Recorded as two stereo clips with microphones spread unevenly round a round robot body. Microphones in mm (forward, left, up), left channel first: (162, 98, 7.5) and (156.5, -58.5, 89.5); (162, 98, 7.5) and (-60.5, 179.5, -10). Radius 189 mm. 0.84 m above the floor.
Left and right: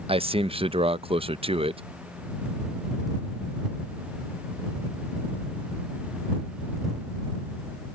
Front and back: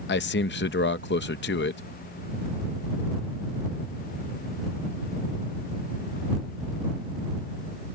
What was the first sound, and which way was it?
A man speaking, 10° right.